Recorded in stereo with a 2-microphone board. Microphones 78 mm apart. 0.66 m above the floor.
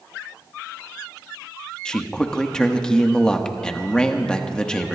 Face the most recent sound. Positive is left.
turn(degrees=10)  # may be behind; listen again after turning